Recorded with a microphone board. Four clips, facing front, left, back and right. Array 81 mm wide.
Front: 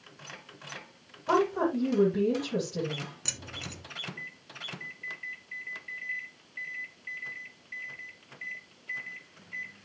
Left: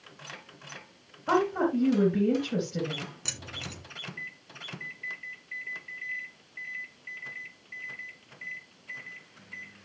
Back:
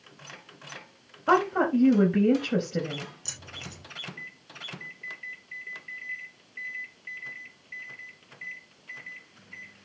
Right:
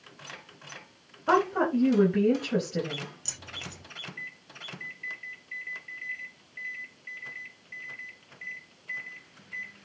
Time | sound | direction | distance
1.3 | a woman speaking | 165° right | 4 m
3.2 | keys jangling | 45° left | 5.5 m